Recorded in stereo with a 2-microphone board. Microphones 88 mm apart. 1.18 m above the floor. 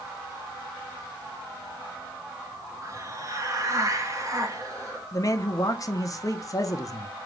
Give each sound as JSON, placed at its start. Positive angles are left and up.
{"t": 2.8, "sound": "a hiss", "side_deg": -40, "distance_m": 0.9}
{"t": 5.1, "sound": "a man speaking", "side_deg": 40, "distance_m": 0.7}